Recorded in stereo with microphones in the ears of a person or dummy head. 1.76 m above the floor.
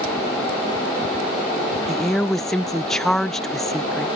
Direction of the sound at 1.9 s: Centre (ahead or behind).